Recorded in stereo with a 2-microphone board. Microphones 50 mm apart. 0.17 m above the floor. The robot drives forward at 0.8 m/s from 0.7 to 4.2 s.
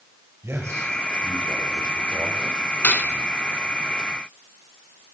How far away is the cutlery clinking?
About 1.0 m.